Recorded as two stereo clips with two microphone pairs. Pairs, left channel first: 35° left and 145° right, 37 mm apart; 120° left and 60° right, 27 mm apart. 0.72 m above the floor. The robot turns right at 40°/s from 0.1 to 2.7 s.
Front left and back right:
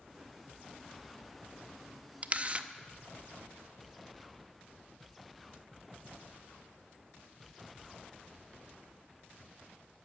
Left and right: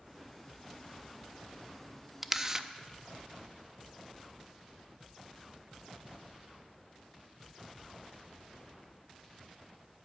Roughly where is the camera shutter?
Behind right.